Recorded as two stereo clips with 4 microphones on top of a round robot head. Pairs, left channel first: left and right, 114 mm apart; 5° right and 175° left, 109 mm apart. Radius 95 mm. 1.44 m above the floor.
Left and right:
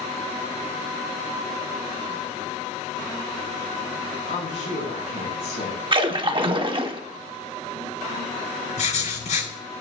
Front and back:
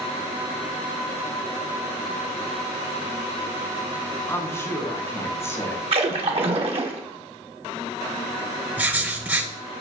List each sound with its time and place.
4.3 s a woman speaking: 60° left, 4 m
5.9 s a splash: 135° right, 1.0 m
8.8 s writing: 100° left, 6.5 m